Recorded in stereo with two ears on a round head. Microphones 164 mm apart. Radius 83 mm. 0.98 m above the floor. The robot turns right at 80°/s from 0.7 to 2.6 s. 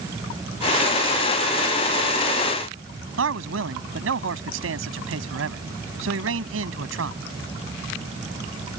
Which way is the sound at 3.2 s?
80° right.